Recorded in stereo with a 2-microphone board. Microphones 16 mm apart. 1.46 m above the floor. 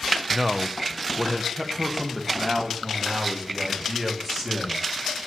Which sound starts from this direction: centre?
A man speaking, at 0.3 s.